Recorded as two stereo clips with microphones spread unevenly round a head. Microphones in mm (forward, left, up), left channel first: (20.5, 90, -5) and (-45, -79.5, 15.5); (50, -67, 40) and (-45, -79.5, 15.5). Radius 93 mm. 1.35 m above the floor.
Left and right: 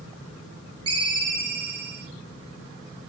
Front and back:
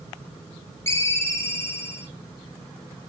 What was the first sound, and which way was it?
A ringtone, 50° right.